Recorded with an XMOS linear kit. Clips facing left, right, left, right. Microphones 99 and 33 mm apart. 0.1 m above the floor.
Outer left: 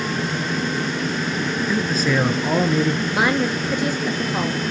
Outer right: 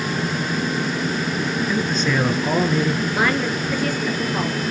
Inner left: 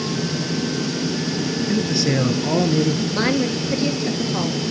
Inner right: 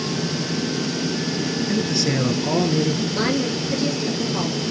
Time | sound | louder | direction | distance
1.7 | a man speaking | outer left 3 dB, inner left 2 dB | 5° left (ahead or behind) | 1.1 m
3.1 | a woman speaking | outer left 1 dB, inner left 2 dB | 20° left (ahead or behind) | 2 m